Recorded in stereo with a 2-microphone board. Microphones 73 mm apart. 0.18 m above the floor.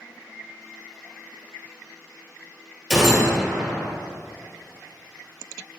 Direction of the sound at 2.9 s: 5° right (ahead or behind).